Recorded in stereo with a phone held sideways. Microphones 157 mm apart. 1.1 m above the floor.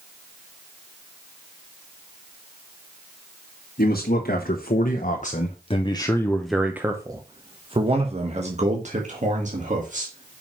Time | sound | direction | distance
3.8 | a man speaking | 75° left (ahead or behind) | 1.5 m